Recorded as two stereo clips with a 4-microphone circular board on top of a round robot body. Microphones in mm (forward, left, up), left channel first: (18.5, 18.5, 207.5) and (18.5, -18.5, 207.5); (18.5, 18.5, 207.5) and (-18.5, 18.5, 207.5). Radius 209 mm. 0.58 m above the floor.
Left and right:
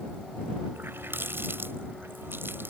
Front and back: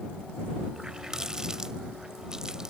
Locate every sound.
0.8 s a running tap: 110° right